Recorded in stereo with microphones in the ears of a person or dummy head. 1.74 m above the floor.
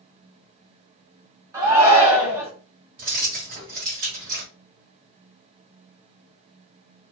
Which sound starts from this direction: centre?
A shout, at 1.5 s.